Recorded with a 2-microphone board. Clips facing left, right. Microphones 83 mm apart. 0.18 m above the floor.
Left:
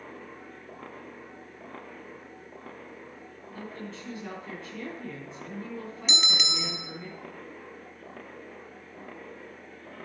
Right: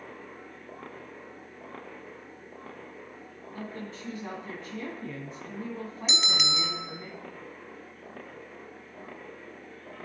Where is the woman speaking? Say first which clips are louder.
Right 1 dB; 20° right (ahead or behind), 1.7 m.